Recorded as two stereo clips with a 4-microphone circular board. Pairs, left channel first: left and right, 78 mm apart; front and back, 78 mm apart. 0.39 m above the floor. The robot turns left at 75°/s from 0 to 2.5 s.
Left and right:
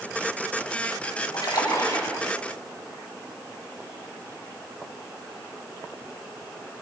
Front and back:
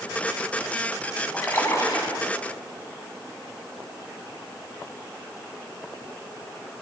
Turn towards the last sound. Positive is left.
turn(degrees=-5)